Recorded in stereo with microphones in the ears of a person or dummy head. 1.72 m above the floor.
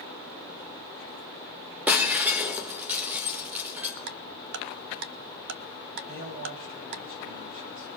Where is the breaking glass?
10° right (ahead or behind), 1.2 m.